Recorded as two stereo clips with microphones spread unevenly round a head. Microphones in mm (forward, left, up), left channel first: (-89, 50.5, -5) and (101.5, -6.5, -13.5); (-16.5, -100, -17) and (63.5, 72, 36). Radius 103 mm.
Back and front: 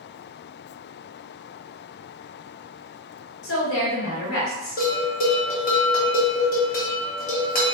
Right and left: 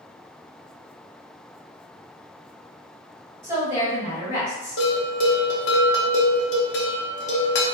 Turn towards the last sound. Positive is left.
turn(degrees=-145)